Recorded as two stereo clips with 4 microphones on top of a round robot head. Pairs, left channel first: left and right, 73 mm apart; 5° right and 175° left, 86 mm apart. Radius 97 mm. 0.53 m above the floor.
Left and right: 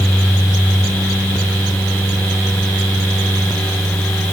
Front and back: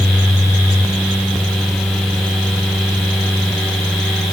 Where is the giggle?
No giggle in this recording.